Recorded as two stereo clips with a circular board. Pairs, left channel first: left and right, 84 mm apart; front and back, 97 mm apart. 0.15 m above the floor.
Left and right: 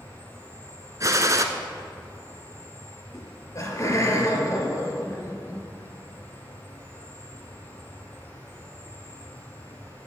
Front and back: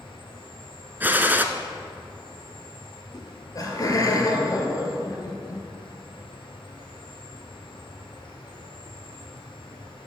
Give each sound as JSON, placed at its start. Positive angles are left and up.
{"t": 0.0, "sound": "an insect", "azimuth_deg": 20, "distance_m": 2.5}
{"t": 1.0, "sound": "a gunshot", "azimuth_deg": -115, "distance_m": 0.7}
{"t": 3.1, "sound": "laughter", "azimuth_deg": 45, "distance_m": 2.5}